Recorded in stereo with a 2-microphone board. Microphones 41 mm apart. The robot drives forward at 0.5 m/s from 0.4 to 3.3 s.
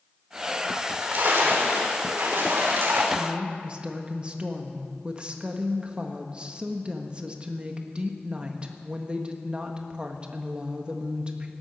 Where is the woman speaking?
25° right (ahead or behind), 1.5 m.